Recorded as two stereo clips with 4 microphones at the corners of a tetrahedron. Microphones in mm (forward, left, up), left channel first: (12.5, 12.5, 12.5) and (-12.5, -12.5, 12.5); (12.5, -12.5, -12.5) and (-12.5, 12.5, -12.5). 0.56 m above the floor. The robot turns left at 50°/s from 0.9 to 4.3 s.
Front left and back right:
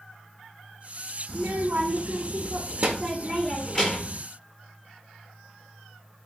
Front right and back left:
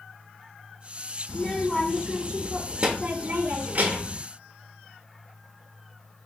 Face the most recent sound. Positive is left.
turn(degrees=105)